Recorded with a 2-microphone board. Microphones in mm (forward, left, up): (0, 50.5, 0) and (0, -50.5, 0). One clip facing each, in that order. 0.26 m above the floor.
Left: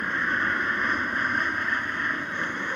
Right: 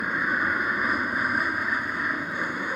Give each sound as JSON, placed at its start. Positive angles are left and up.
{"t": 0.0, "sound": "an aircraft", "side_deg": -10}